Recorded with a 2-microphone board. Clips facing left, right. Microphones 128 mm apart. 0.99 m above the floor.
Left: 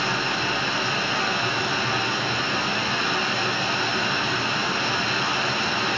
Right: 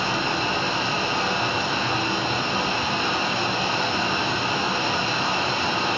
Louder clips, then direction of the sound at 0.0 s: Right 2 dB; 30° right (ahead or behind).